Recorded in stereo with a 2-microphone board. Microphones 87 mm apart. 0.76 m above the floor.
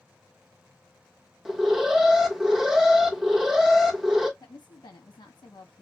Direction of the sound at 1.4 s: 5° right (ahead or behind).